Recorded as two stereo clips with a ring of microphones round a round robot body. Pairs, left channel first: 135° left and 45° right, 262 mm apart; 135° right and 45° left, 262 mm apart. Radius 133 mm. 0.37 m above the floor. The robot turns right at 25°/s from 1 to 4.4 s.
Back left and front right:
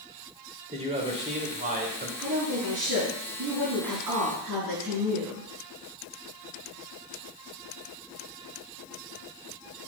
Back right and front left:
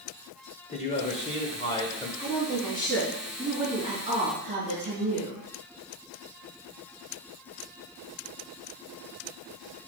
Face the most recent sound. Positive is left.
turn(degrees=-20)